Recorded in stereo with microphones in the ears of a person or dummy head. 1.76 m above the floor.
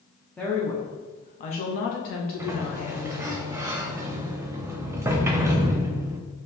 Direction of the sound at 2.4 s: 15° right (ahead or behind).